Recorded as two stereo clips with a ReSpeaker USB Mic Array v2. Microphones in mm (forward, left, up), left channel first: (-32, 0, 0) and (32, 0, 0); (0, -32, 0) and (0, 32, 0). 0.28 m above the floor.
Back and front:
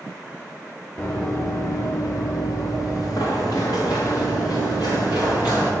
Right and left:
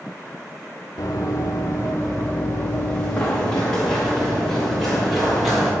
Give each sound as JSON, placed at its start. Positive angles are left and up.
{"t": 1.0, "sound": "running footsteps", "azimuth_deg": -120, "distance_m": 1.1}